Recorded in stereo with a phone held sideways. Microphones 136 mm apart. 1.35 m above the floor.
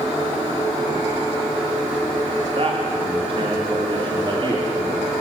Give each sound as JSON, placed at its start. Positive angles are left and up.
{"t": 2.5, "sound": "a man speaking", "side_deg": -45, "distance_m": 3.0}